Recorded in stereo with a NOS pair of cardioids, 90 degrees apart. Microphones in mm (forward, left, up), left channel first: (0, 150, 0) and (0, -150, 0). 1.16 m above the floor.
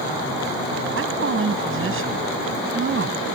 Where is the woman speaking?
45° right.